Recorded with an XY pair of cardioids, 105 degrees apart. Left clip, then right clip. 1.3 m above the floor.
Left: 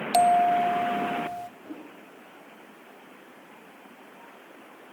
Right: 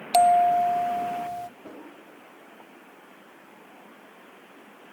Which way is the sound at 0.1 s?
20° right.